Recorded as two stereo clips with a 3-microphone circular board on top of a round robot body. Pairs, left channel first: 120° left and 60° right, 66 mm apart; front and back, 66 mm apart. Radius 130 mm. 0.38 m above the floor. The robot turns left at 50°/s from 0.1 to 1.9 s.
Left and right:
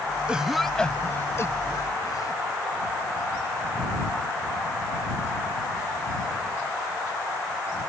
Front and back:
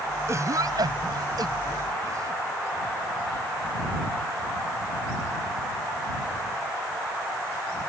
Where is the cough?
135° right; by 2.4 s 145° left.